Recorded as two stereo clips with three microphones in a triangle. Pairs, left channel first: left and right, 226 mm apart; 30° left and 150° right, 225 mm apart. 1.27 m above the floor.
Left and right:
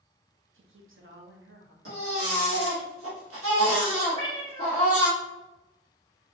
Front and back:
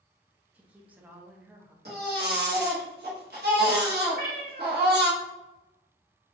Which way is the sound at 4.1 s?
110° right.